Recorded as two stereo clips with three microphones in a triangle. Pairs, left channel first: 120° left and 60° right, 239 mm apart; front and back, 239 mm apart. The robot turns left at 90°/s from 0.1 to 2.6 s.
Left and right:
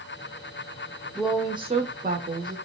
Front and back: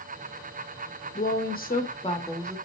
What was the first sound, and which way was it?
A woman speaking, 35° left.